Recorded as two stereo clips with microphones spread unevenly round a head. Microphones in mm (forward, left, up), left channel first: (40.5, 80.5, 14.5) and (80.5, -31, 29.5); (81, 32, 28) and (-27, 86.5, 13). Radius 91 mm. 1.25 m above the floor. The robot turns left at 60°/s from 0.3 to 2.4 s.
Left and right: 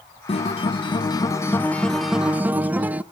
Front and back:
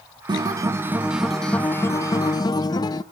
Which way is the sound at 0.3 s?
115° left.